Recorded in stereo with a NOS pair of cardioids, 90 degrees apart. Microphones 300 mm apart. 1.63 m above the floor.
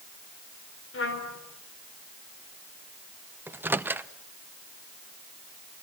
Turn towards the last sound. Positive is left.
turn(degrees=-5)